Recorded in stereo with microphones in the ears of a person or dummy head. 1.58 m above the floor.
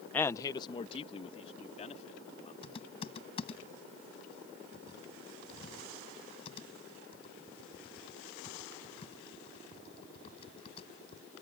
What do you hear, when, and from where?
0.1 s a man speaking: 5° left (ahead or behind); by 2.5 s 35° left (ahead or behind)
2.6 s typing on a keyboard: 30° left (ahead or behind)